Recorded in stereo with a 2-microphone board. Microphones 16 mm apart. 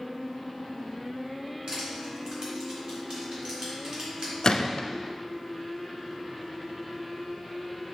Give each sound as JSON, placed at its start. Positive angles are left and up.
{"t": 1.7, "sound": "crushing", "side_deg": -55, "distance_m": 2.5}
{"t": 4.4, "sound": "a gunshot", "side_deg": 50, "distance_m": 0.6}